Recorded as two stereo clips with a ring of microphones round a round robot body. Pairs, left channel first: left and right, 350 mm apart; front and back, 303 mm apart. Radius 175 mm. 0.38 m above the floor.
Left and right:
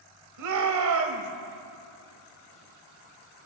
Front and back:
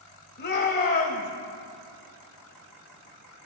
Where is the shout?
60° right, 1.9 m.